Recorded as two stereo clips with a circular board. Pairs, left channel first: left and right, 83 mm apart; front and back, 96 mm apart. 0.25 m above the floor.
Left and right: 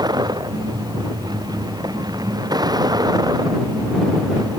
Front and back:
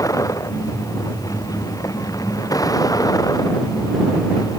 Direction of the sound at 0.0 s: 55° right.